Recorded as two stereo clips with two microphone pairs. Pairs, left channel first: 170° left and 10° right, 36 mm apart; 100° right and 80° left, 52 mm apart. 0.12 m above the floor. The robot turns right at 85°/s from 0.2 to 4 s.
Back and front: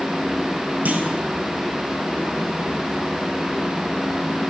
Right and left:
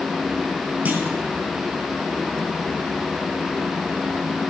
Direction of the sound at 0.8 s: 25° left.